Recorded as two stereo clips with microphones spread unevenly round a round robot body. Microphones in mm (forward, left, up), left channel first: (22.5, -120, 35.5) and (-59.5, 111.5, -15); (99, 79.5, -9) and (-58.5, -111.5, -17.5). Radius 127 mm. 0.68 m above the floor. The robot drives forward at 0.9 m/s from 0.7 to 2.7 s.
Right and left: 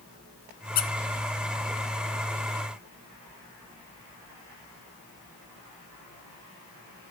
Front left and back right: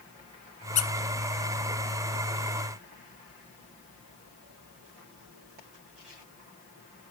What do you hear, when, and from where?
0.8 s a squeak: 10° right, 1.2 m